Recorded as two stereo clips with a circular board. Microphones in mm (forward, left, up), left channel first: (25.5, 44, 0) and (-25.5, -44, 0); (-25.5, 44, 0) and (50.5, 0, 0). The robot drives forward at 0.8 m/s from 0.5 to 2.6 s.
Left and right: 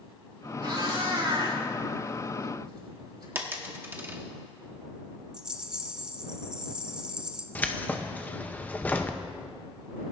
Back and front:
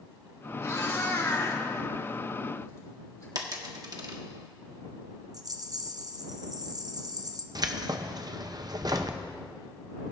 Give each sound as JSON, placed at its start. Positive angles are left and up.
{"t": 0.6, "sound": "a cat meowing", "azimuth_deg": -160, "distance_m": 4.5}
{"t": 3.4, "sound": "a dropped coin", "azimuth_deg": -55, "distance_m": 1.1}
{"t": 5.3, "sound": "a rattle", "azimuth_deg": -40, "distance_m": 0.7}
{"t": 7.5, "sound": "keys jangling", "azimuth_deg": -10, "distance_m": 0.6}